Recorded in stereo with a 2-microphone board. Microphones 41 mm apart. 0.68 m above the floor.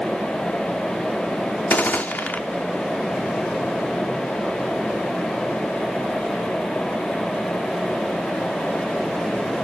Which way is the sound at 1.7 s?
45° left (ahead or behind).